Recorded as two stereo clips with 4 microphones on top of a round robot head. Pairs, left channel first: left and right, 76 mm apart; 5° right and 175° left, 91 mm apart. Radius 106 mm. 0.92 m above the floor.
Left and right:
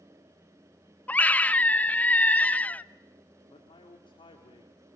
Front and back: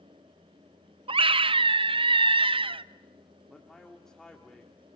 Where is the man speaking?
85° left, 2.0 m.